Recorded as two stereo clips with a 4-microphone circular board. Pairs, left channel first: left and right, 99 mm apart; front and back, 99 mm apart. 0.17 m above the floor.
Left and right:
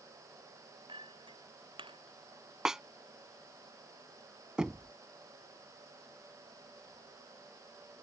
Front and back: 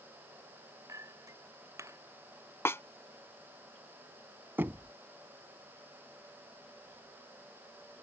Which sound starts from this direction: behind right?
A clink, at 0.9 s.